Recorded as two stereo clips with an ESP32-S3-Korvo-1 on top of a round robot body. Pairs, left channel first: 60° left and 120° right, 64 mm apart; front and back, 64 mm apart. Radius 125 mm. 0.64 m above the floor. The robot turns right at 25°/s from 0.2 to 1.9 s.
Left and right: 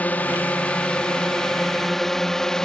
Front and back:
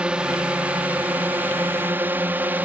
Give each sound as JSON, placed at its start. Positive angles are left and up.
{"t": 0.0, "sound": "a drone", "azimuth_deg": 115}